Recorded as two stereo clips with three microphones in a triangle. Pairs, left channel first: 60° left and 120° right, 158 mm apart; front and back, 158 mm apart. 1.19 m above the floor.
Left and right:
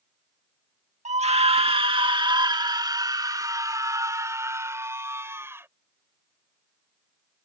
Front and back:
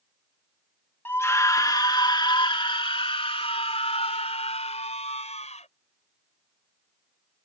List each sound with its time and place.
1.1 s a scream: 75° right; by 5.7 s 45° right